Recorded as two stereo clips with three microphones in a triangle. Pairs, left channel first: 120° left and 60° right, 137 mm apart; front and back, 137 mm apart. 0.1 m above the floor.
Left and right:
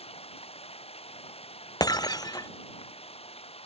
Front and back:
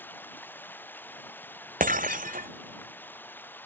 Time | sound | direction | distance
0.0 | running water | 75° left | ?
1.8 | breaking glass | straight behind | ?